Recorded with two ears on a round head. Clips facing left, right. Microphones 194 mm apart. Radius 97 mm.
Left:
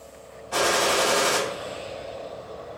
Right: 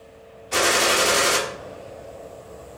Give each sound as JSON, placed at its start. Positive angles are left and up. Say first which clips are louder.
{"t": 0.5, "sound": "a gunshot", "louder": "right 1 dB", "side_deg": -30, "distance_m": 1.2}